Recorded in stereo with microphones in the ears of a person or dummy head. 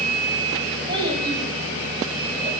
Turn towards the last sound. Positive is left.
turn(degrees=-20)  # may be behind; listen again after turning